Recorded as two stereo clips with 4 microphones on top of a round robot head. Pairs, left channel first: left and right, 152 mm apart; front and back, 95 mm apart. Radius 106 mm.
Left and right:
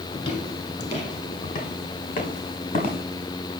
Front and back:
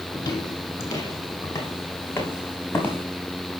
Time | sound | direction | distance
0.1 | footsteps | 40° left | 1.9 m